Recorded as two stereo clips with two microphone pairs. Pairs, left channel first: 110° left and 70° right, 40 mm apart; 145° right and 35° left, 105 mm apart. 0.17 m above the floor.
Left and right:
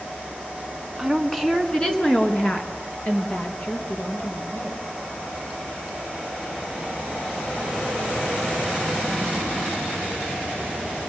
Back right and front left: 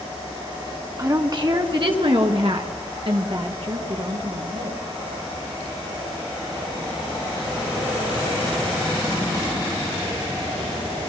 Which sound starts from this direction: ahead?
A woman speaking, at 1.0 s.